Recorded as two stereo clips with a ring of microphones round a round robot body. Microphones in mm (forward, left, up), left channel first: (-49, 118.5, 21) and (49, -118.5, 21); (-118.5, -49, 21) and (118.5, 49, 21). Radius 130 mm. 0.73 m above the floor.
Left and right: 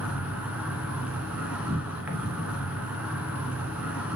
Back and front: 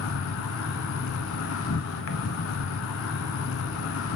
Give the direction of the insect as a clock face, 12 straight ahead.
5 o'clock.